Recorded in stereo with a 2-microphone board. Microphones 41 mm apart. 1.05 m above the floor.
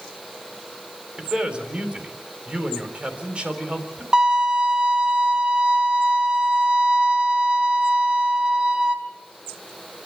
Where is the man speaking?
25° right (ahead or behind), 3.5 m.